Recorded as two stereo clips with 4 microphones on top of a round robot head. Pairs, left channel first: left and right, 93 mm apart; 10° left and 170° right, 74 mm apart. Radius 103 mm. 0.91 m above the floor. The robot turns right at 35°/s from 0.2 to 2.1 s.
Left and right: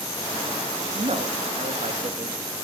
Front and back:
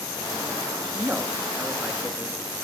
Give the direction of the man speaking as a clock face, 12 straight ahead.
3 o'clock.